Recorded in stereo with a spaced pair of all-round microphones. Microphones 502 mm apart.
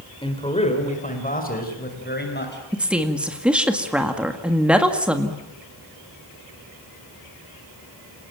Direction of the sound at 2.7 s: Centre (ahead or behind).